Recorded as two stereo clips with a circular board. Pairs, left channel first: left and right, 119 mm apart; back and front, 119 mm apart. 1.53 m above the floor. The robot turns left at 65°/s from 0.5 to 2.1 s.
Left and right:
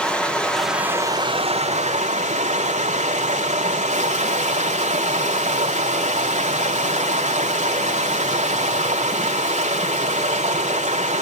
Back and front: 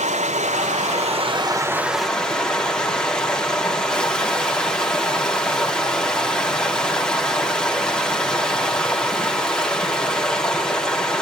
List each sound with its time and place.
0.0 s running water: 10° left, 4 m; by 11.2 s 95° right, 4 m